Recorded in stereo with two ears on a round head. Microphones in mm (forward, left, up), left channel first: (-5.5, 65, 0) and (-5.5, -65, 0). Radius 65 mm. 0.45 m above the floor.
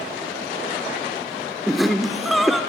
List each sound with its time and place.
1.7 s laughter: centre (ahead or behind), 0.8 m